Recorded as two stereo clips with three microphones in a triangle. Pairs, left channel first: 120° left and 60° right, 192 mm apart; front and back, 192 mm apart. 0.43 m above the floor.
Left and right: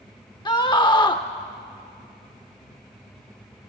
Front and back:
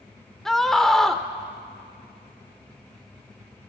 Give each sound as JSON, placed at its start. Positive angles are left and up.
{"t": 0.5, "sound": "a scream", "azimuth_deg": 85, "distance_m": 0.8}